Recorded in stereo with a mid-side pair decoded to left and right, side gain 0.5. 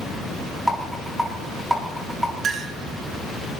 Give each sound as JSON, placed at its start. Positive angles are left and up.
{"t": 0.7, "sound": "a rattle", "azimuth_deg": 0, "distance_m": 7.0}
{"t": 2.4, "sound": "a clink", "azimuth_deg": -55, "distance_m": 3.0}